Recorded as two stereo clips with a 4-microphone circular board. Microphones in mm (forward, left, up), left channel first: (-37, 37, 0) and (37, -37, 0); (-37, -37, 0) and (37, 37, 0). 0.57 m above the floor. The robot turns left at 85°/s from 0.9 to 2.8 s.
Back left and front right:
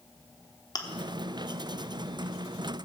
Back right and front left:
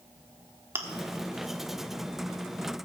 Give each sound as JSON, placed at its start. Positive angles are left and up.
{"t": 0.8, "sound": "chewing", "azimuth_deg": 105, "distance_m": 1.2}